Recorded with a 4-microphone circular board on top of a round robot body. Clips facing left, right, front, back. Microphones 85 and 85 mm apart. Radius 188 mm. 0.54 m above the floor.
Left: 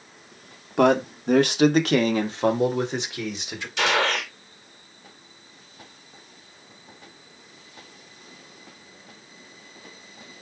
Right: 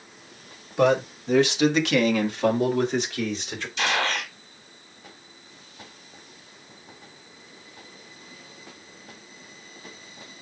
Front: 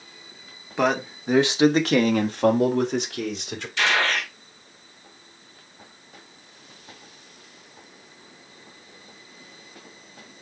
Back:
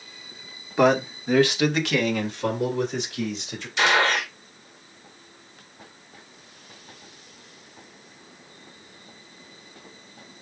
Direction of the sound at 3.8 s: 110° left.